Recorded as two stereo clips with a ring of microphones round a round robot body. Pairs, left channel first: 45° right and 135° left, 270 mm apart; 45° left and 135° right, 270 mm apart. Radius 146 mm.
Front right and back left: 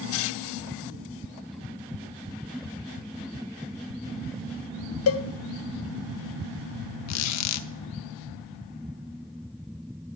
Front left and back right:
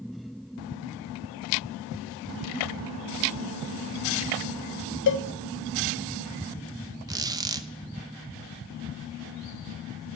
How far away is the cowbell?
About 0.6 m.